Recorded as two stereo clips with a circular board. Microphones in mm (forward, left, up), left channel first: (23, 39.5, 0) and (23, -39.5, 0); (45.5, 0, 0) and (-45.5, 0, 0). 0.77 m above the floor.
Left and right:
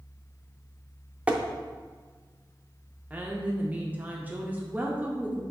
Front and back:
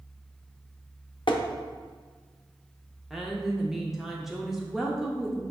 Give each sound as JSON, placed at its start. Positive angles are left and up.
{"t": 1.3, "sound": "tapping", "azimuth_deg": -15, "distance_m": 0.5}
{"t": 3.1, "sound": "a woman speaking", "azimuth_deg": -100, "distance_m": 0.6}